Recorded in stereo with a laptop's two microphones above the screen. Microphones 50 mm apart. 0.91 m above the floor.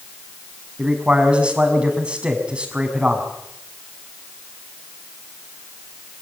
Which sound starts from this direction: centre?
A man speaking, at 0.8 s.